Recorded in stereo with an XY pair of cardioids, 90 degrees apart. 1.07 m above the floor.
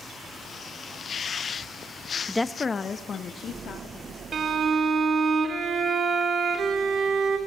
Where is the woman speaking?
5° left, 0.5 m; by 4.2 s 65° left, 2.5 m.